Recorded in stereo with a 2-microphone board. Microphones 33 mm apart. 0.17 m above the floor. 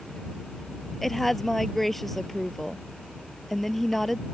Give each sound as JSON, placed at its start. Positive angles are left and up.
{"t": 1.0, "sound": "a woman speaking", "side_deg": 5}